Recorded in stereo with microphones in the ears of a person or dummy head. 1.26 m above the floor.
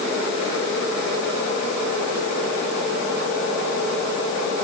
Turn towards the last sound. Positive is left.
No sound to turn to.